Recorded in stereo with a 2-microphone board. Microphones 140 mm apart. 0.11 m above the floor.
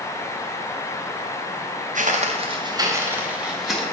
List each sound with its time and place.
1.9 s footsteps: 65° right (ahead or behind), 1.1 m; by 3.8 s centre (ahead or behind), 1.8 m